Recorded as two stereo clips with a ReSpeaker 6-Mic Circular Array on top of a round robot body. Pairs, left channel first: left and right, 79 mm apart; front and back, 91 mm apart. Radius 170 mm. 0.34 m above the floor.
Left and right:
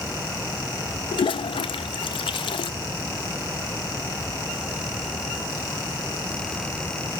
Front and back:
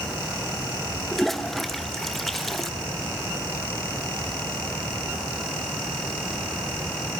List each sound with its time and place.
1.1 s a toilet flushing: 85° left, 0.7 m